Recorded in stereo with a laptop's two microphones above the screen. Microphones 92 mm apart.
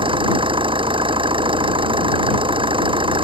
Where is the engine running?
75° right (ahead or behind).